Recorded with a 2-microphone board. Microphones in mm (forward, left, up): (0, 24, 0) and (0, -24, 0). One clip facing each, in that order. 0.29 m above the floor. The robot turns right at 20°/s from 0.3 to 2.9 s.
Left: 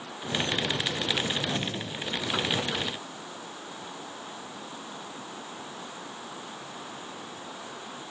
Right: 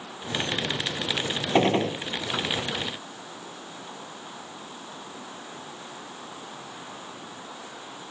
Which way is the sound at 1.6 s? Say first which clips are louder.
Right 11 dB; 80° right.